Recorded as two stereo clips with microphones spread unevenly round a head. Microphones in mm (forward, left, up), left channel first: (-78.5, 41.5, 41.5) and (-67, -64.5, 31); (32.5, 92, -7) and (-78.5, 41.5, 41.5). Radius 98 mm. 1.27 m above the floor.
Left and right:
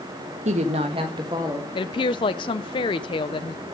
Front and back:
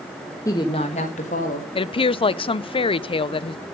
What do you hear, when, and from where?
0.5 s a woman speaking: 50° right, 1.1 m; by 1.6 s 10° right, 1.9 m
1.8 s a woman speaking: 45° left, 0.5 m